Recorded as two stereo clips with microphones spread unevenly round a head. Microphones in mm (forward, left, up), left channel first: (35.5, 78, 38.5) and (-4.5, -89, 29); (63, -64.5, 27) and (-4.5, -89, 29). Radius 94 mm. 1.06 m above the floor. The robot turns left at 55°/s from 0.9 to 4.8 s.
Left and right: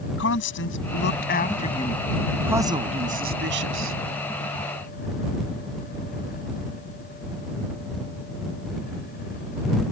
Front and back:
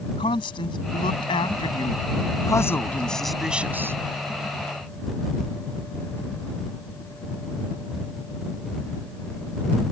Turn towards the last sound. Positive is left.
turn(degrees=-150)